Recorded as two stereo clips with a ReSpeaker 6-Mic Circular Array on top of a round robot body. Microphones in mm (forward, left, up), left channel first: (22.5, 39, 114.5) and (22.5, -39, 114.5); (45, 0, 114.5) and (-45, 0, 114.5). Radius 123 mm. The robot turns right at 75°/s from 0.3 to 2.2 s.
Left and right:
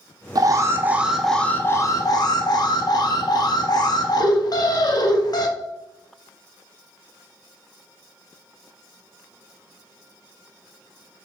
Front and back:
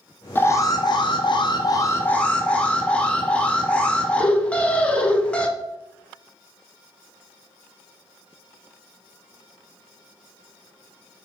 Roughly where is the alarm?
Ahead right.